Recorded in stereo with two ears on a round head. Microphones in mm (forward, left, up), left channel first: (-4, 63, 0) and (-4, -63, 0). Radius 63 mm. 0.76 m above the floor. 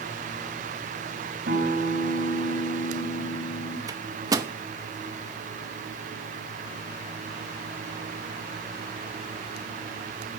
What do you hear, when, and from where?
1.5 s a guitar: 75° right (ahead or behind), 3 m
3.9 s a microwave: 25° right (ahead or behind), 0.9 m